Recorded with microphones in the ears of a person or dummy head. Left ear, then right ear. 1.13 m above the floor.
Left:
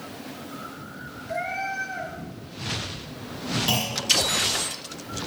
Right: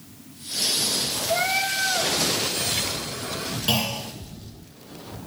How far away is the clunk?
About 2.5 m.